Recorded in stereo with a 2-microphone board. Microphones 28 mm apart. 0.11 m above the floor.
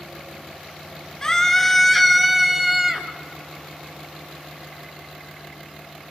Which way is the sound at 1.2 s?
20° left (ahead or behind).